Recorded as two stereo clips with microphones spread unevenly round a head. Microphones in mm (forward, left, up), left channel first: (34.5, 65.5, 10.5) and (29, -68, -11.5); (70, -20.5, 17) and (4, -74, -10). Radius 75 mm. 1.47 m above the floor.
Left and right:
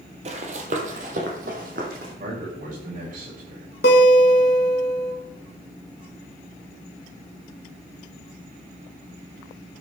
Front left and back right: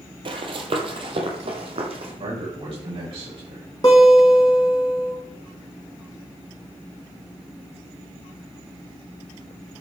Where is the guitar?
105° left, 2 m.